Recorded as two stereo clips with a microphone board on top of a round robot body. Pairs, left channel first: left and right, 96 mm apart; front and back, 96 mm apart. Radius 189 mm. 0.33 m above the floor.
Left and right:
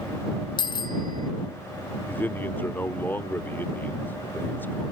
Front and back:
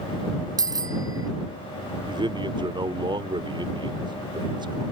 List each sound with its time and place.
0.6 s a bicycle bell: 130° left
2.1 s a man speaking: 155° left